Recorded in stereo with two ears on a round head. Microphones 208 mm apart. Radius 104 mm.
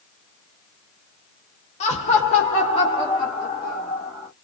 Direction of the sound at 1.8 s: 30° left (ahead or behind).